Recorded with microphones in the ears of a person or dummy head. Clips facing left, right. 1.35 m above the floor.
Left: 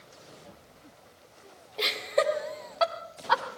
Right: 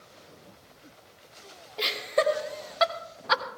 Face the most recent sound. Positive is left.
turn(degrees=-35)  # may be behind; listen again after turning